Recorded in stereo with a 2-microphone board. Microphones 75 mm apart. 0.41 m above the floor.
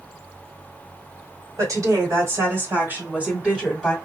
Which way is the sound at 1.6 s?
55° right (ahead or behind).